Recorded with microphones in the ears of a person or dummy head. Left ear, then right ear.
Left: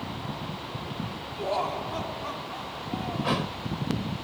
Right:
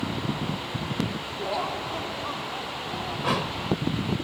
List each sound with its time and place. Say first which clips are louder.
1.4 s laughter: left 1 dB; 10° left (ahead or behind)
3.2 s a thud: right 3 dB; centre (ahead or behind)